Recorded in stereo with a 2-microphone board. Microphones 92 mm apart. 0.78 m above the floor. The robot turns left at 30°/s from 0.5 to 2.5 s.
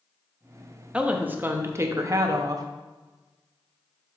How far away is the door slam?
No door slam in this recording.